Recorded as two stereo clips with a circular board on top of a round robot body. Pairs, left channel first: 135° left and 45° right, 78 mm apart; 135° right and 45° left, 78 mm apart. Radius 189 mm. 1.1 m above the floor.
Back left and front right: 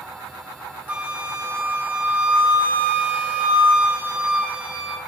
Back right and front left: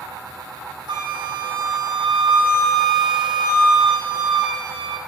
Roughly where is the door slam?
No door slam in this recording.